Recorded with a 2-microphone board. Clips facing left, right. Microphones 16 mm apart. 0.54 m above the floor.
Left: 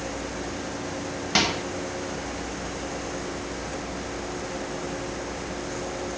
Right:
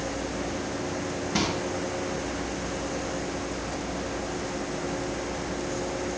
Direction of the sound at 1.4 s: 60° left (ahead or behind).